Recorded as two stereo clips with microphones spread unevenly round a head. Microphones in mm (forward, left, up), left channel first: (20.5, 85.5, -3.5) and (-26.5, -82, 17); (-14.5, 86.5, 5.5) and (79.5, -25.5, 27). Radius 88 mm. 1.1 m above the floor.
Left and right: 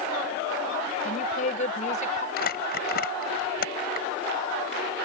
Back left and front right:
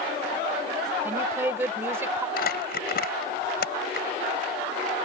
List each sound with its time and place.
1.1 s a woman speaking: 25° left; by 2.3 s 20° left
2.4 s crumpling: 115° left